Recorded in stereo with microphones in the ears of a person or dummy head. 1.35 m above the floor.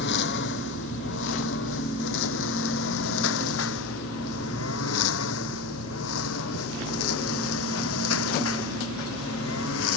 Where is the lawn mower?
60° left (ahead or behind); by 10.0 s 80° left.